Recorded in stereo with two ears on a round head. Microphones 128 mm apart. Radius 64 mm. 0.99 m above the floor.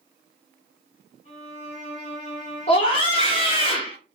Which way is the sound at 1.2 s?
45° left (ahead or behind).